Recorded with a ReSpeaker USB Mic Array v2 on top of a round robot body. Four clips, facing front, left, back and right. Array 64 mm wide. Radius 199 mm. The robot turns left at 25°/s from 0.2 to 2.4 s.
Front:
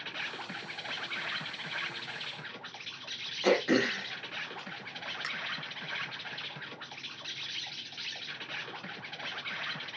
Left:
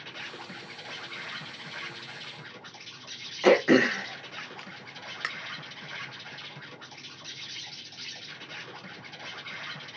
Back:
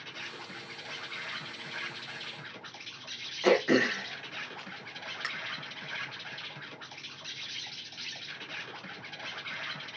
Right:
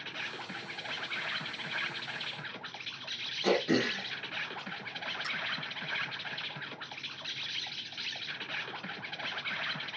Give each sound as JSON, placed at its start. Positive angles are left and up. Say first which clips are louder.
{"t": 0.0, "sound": "an insect", "louder": "right 1 dB, front 4 dB", "azimuth_deg": -15, "distance_m": 1.2}
{"t": 3.4, "sound": "throat clearing", "louder": "left 9 dB, back 2 dB", "azimuth_deg": 95, "distance_m": 0.8}